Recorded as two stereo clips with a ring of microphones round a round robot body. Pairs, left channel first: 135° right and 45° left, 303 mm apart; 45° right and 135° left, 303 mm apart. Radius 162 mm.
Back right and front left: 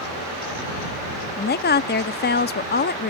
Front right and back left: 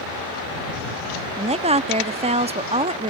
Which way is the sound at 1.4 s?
165° right.